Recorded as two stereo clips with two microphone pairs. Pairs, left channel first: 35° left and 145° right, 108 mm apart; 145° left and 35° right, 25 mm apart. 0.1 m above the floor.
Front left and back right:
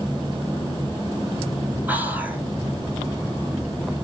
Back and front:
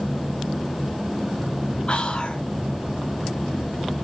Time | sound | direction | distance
1.9 | whispering | 150° left | 1.8 m